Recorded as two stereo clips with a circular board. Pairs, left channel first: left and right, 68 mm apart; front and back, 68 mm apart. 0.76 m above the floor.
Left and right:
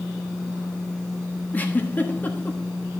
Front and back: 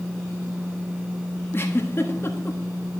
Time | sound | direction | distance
1.5 | a giggle | 35° left | 1.3 m